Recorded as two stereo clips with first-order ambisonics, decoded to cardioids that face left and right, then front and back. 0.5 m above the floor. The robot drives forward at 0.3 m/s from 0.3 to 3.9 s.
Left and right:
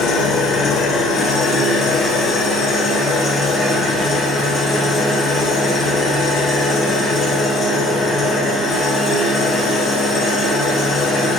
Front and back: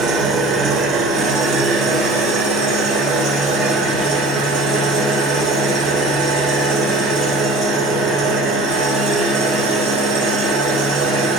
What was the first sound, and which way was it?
An engine running, 140° left.